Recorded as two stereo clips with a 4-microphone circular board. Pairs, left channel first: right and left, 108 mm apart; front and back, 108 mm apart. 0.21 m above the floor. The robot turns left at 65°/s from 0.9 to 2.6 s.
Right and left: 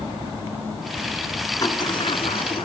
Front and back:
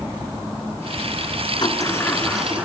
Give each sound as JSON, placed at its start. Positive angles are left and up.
{"t": 1.6, "sound": "a sliding door", "azimuth_deg": -40, "distance_m": 3.0}